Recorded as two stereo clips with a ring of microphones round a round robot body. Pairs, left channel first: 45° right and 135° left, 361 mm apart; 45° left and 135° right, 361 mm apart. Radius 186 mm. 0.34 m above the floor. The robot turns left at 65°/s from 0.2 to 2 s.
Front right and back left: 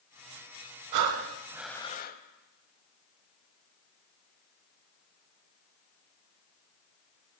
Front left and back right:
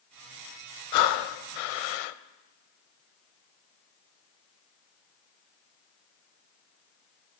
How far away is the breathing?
About 0.6 m.